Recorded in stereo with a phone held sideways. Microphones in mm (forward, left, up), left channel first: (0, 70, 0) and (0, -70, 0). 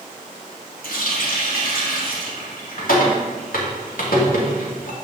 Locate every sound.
0.8 s a running tap: 70° left (ahead or behind), 2 m